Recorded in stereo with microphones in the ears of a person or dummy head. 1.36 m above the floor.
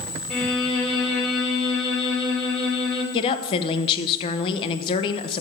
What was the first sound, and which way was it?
A violin, centre (ahead or behind).